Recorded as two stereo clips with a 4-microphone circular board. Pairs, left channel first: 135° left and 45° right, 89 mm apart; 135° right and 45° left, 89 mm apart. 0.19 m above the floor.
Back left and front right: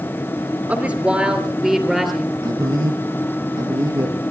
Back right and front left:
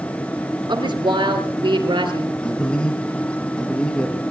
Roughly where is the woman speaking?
Ahead left.